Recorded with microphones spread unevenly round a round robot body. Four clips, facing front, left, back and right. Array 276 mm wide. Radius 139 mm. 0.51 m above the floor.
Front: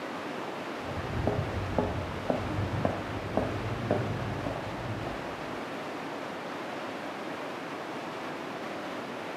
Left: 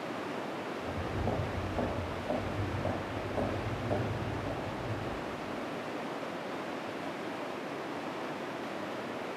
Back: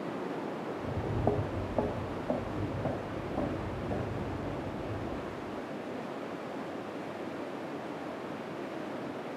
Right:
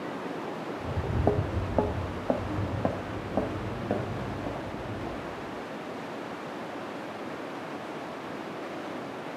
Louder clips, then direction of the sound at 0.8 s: Right 9 dB, back 1 dB; 95° right.